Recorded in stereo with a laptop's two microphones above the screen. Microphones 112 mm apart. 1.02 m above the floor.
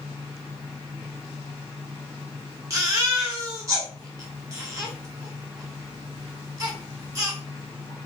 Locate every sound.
0.0 s a fan: 25° right (ahead or behind), 2.5 m
2.7 s a baby crying: 30° right (ahead or behind), 1.2 m